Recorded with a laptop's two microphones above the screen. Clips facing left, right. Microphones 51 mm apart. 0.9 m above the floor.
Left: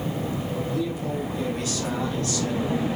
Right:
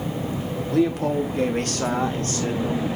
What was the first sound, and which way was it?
A man speaking, 70° right (ahead or behind).